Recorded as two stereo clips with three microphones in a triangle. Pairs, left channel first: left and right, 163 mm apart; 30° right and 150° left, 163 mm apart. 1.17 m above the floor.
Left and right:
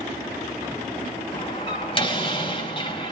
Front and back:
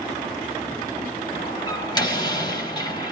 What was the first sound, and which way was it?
A door slam, 35° left.